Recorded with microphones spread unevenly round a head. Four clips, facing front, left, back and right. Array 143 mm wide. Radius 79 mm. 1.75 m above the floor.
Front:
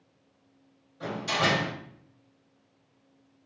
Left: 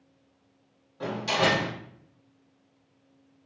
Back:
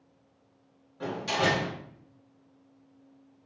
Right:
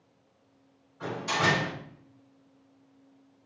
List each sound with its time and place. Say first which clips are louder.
1.0 s a door slam: left 2 dB, even; 120° left, 4.5 m